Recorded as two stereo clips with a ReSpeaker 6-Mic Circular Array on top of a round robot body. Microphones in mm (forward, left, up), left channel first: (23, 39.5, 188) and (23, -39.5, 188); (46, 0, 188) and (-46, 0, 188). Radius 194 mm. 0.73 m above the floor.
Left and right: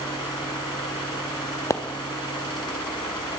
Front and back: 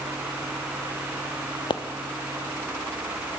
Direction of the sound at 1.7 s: 35° left.